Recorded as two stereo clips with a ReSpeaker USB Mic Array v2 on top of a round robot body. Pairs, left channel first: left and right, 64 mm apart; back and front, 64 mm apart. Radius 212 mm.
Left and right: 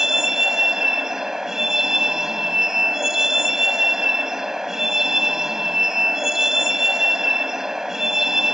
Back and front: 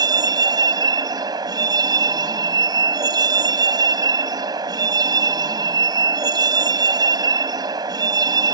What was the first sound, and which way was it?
A vehicle, 5° right.